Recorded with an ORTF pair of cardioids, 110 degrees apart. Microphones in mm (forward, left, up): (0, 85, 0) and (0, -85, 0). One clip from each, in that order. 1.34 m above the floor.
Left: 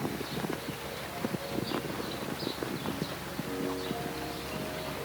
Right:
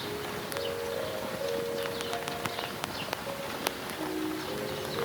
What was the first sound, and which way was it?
Only background noise.